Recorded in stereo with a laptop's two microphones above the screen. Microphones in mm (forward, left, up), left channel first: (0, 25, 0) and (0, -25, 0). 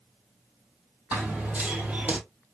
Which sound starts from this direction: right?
Running footsteps, at 1.1 s.